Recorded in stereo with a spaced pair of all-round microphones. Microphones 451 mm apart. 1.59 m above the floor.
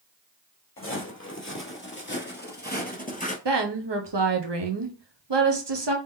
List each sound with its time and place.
0.8 s footsteps: 30° left (ahead or behind), 1.9 m; by 3.4 s 15° left (ahead or behind), 1.7 m
3.5 s a woman speaking: 65° right (ahead or behind), 0.9 m